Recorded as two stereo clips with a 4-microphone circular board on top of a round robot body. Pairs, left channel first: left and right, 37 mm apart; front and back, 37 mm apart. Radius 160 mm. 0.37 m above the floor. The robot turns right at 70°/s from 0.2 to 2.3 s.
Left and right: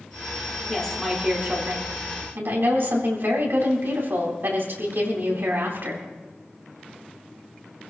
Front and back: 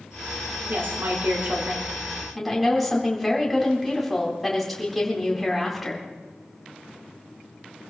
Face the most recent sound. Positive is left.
turn(degrees=-90)